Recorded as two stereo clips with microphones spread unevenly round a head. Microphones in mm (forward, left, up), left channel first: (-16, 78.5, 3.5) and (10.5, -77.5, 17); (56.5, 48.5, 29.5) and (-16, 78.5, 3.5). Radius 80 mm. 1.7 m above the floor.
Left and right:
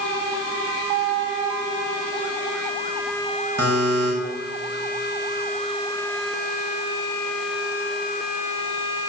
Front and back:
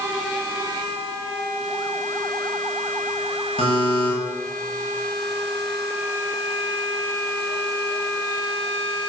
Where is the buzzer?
60° right, 7 m.